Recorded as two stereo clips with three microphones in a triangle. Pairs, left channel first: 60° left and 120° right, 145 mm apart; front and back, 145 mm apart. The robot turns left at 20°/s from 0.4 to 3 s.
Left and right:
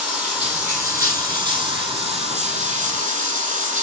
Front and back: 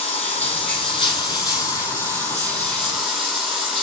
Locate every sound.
0.0 s running water: 35° right, 1.4 m; by 3.8 s 90° right, 1.4 m